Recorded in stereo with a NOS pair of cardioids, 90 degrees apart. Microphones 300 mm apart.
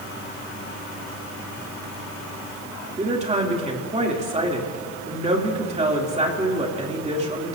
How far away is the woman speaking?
About 2.5 m.